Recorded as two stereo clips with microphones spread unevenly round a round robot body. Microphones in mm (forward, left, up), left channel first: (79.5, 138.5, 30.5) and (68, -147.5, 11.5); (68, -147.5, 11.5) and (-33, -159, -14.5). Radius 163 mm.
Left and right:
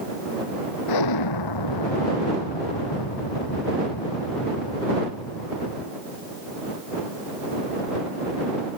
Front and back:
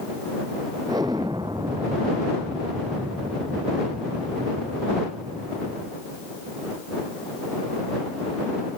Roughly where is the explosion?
Left.